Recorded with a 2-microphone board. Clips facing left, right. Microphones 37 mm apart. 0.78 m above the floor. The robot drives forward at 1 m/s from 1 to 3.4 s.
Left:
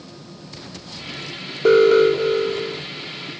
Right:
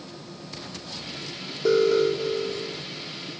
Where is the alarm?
50° left (ahead or behind); by 2.8 s 60° left (ahead or behind).